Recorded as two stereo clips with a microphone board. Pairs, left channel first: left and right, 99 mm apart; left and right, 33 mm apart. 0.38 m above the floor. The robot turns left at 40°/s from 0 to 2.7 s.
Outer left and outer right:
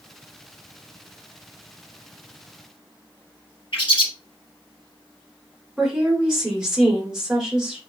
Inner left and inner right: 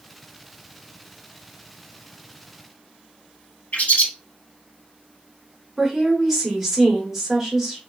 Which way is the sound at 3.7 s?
60° left (ahead or behind).